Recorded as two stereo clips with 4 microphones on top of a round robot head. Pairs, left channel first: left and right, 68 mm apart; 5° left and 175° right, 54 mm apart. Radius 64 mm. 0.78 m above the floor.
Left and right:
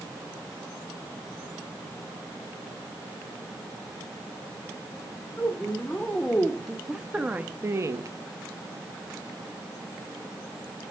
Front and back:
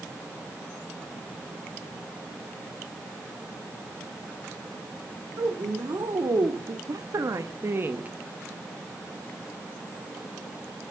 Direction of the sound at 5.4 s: 160° left.